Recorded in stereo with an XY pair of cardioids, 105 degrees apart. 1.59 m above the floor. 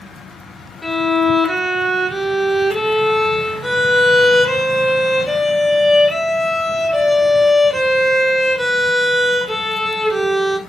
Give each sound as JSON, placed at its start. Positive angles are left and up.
{"t": 0.8, "sound": "a violin", "azimuth_deg": 0, "distance_m": 1.0}